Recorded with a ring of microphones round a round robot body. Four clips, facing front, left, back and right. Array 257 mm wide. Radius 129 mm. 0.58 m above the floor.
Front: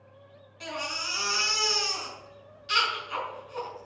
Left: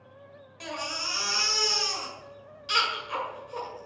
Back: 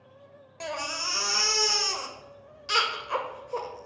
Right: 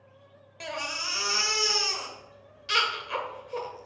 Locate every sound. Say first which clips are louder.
0.6 s a baby crying: even, back 2 dB; 160° right, 1.9 m